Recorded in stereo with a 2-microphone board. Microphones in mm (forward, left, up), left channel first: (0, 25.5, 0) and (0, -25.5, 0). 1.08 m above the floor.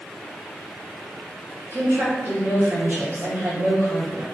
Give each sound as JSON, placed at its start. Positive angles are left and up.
{"t": 1.7, "sound": "a woman speaking", "side_deg": -45, "distance_m": 1.7}